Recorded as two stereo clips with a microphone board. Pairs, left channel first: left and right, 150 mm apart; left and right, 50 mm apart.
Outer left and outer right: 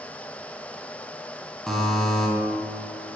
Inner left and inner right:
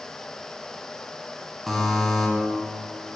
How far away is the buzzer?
About 1.0 m.